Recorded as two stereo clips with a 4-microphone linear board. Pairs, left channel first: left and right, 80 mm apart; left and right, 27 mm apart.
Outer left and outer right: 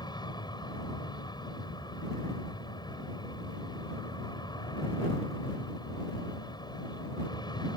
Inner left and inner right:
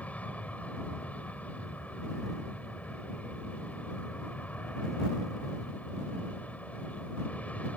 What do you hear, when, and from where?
0.0 s an aircraft: 65° left (ahead or behind)